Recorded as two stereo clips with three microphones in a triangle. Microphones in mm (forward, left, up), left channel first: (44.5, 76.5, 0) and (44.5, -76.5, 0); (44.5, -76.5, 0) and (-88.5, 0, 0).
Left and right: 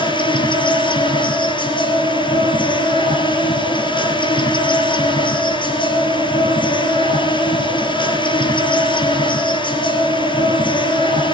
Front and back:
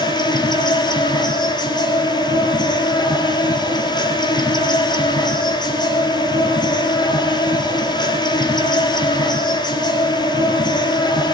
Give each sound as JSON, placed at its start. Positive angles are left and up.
{"t": 0.0, "sound": "an insect", "azimuth_deg": 30, "distance_m": 3.5}